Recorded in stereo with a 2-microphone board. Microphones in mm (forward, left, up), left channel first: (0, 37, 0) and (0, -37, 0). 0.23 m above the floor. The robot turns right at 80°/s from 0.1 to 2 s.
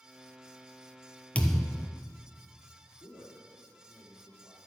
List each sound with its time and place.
1.4 s a thud: 160° left, 0.9 m; by 1.9 s 155° right, 0.9 m
3.0 s a man speaking: 60° left (ahead or behind), 3.5 m